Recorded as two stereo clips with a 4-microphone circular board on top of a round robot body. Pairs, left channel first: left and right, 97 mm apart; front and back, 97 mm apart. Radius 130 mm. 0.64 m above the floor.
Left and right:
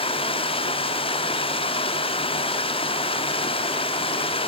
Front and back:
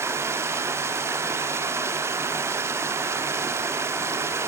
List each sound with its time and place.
0.0 s running water: 115° left, 0.8 m